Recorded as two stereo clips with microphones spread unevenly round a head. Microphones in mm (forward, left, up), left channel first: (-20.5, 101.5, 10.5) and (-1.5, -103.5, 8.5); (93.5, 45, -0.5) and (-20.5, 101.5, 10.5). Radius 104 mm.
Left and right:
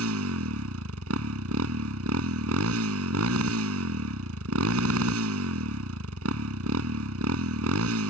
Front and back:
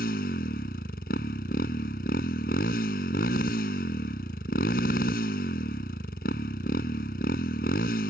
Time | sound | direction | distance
0.0 | a motorcycle | 60° right | ?